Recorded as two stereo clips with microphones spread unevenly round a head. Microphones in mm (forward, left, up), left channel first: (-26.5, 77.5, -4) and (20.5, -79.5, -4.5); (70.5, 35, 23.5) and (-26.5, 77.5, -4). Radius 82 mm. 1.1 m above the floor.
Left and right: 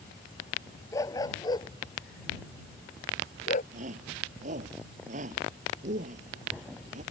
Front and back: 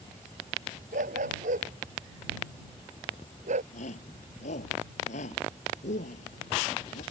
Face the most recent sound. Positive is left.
turn(degrees=-25)